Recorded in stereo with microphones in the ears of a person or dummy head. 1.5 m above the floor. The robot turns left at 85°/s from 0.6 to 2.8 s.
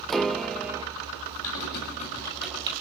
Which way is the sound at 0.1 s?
Centre (ahead or behind).